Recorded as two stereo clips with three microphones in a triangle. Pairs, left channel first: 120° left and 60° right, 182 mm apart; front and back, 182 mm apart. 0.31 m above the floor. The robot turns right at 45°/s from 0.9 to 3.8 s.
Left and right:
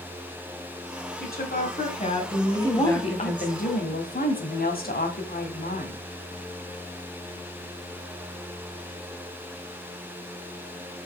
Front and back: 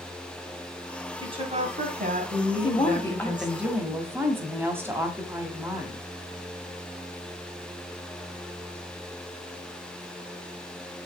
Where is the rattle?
No rattle in this recording.